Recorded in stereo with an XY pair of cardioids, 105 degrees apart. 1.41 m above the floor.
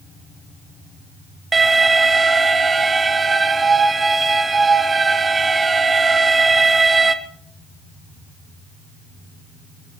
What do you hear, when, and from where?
1.5 s an alarm: 30° right, 1.4 m